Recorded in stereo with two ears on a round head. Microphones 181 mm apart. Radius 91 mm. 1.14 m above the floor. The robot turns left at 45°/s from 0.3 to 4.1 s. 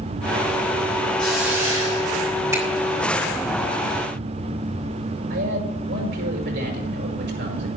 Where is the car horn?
I don't hear a car horn.